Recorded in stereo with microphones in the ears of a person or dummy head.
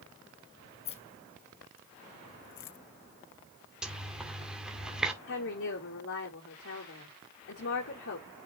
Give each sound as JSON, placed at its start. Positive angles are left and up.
{"t": 0.8, "sound": "keys jangling", "side_deg": 35, "distance_m": 0.9}
{"t": 3.8, "sound": "a zipper", "side_deg": -5, "distance_m": 1.9}
{"t": 5.3, "sound": "a woman speaking", "side_deg": 70, "distance_m": 3.5}